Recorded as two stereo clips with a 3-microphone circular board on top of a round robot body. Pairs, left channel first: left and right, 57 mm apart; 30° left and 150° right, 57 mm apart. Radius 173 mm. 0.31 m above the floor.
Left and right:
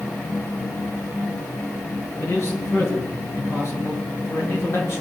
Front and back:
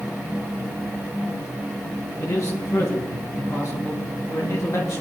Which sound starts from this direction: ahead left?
A man speaking, at 2.2 s.